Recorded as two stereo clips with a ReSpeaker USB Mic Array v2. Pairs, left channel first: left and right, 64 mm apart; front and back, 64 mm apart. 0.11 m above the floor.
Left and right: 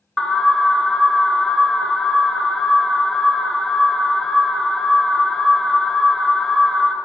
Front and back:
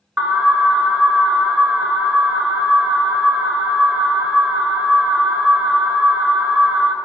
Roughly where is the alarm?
Behind.